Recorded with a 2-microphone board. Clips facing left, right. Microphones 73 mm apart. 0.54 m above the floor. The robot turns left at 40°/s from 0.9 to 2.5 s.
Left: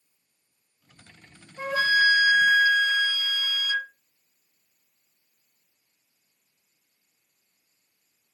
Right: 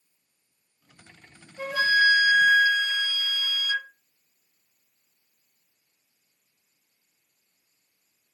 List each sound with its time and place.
1.6 s a flute: 45° left, 1.9 m; by 3.9 s 5° left, 1.9 m